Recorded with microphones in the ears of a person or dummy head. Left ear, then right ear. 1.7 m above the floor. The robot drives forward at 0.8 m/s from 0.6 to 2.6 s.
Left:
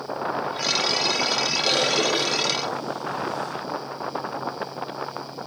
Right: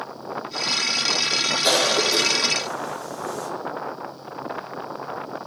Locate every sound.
1.6 s a cough: 70° right (ahead or behind), 1.4 m; by 3.5 s 55° right (ahead or behind), 1.6 m